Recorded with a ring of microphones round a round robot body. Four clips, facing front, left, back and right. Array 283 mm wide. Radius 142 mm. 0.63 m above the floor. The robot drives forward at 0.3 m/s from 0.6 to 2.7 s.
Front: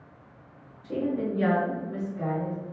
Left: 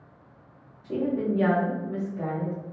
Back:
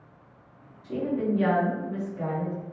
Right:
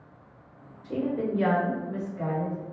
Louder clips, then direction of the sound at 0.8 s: Left 2 dB, back 1 dB; 80° left.